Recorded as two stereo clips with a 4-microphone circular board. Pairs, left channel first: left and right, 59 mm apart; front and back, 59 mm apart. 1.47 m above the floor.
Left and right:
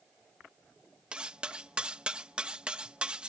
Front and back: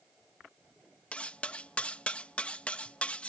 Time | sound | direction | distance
1.1 | cutlery clinking | 40° right | ?